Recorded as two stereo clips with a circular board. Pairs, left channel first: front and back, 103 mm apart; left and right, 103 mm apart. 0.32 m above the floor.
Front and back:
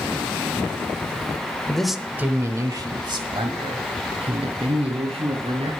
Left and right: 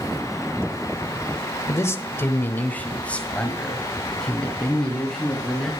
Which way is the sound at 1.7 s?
70° left.